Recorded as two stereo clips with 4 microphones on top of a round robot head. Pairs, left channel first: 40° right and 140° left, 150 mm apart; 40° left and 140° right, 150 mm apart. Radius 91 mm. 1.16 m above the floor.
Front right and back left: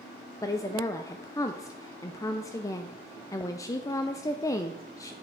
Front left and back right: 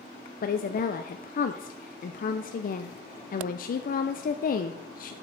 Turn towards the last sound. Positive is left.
turn(degrees=30)